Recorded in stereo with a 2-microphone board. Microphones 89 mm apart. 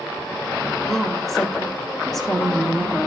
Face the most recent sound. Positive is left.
turn(degrees=0)  # may be behind; listen again after turning